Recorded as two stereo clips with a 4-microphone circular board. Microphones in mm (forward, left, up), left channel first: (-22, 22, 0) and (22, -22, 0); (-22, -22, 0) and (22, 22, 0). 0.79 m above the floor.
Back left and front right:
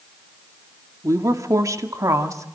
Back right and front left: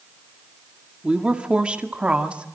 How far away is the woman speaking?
About 1.9 m.